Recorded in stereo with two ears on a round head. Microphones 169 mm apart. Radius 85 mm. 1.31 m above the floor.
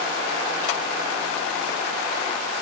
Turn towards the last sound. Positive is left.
No sound to turn to.